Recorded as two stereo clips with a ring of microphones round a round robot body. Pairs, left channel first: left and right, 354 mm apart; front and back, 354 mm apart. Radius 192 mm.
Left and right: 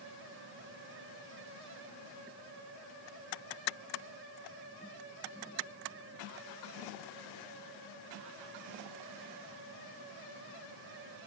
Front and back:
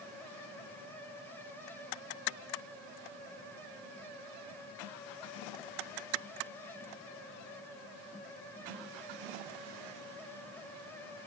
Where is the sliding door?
No sliding door in this recording.